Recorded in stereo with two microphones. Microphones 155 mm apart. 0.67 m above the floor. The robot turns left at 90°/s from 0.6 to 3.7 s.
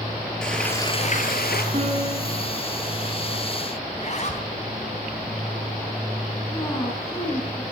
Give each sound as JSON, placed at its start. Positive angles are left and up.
{"t": 0.4, "sound": "frying", "azimuth_deg": 175, "distance_m": 3.5}
{"t": 1.7, "sound": "a piano", "azimuth_deg": -40, "distance_m": 5.5}
{"t": 3.9, "sound": "a zipper", "side_deg": 45, "distance_m": 3.5}
{"t": 6.5, "sound": "a woman speaking", "side_deg": 20, "distance_m": 5.5}